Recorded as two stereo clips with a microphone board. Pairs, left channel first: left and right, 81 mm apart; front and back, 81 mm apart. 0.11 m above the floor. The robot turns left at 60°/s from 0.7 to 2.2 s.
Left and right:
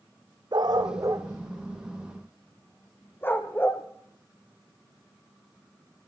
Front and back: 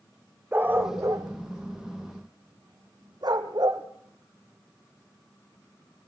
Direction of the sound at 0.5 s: 115° right.